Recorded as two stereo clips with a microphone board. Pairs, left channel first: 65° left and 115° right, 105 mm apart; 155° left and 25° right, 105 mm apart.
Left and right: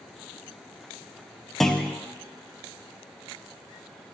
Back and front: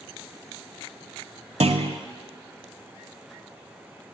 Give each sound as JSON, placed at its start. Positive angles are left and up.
{"t": 1.6, "sound": "a clunk", "azimuth_deg": -20, "distance_m": 0.5}